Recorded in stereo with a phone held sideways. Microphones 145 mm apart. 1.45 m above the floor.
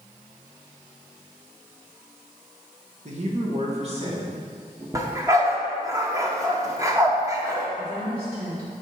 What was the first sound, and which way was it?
A man speaking, 55° right (ahead or behind).